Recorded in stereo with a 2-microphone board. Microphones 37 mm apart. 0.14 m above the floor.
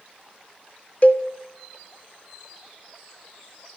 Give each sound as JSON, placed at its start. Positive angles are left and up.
{"t": 1.0, "sound": "a cowbell", "side_deg": 40, "distance_m": 0.6}